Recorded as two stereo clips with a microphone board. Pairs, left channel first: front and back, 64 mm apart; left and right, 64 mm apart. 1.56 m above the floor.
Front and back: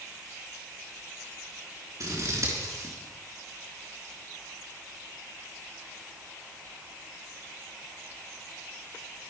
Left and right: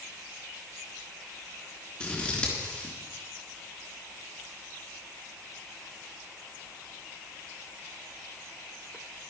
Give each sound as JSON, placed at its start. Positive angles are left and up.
{"t": 2.0, "sound": "scissors", "azimuth_deg": 165, "distance_m": 4.0}